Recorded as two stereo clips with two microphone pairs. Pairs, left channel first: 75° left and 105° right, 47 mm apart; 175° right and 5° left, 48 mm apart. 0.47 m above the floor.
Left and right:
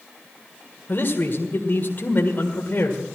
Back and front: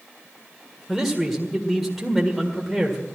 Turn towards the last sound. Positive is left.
turn(degrees=90)